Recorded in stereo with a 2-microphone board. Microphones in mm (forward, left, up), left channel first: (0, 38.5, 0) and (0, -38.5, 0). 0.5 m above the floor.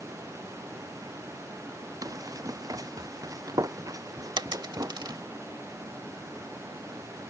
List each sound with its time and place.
2.0 s running footsteps: 50° right (ahead or behind)
4.4 s a dropped coin: 70° right (ahead or behind)